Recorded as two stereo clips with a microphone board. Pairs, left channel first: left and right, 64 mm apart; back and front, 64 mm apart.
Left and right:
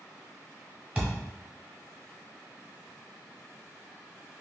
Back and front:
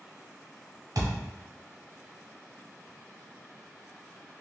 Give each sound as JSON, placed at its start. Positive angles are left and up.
{"t": 0.9, "sound": "a thud", "azimuth_deg": -20, "distance_m": 1.6}